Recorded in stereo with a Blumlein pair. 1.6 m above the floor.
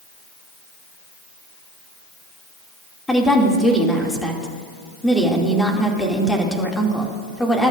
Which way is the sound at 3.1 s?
5° left.